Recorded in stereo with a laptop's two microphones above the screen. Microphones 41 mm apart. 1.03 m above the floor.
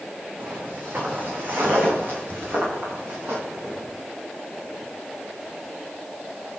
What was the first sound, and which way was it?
Footsteps, 40° right (ahead or behind).